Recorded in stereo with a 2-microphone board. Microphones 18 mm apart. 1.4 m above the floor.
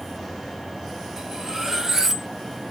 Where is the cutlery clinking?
25° right (ahead or behind), 0.7 m.